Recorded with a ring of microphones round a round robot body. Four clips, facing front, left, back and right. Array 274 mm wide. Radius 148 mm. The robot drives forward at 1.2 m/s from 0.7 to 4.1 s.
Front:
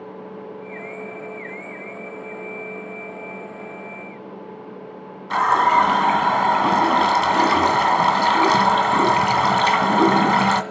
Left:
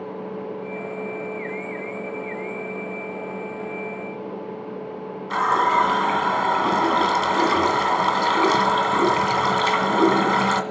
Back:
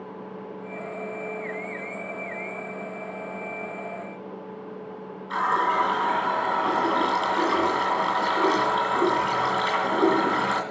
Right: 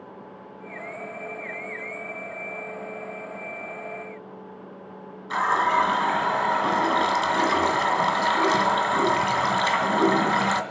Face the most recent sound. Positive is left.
turn(degrees=-5)